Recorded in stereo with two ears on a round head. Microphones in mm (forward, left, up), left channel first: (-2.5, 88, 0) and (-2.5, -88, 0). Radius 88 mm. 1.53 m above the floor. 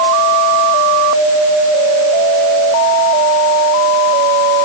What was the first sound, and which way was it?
Only background noise.